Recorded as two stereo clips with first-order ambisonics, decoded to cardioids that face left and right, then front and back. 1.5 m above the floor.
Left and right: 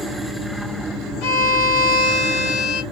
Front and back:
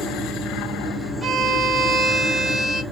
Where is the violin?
100° left, 1.1 m.